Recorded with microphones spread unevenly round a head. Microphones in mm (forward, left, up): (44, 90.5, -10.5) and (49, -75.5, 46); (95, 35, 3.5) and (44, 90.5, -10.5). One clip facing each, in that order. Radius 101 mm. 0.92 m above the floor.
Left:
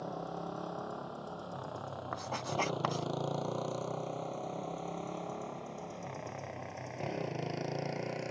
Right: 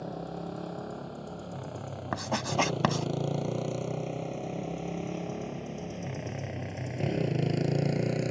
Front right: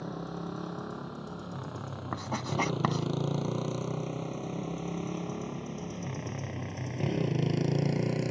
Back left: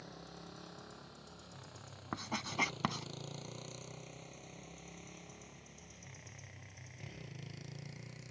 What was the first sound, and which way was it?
A motorcycle, 15° right.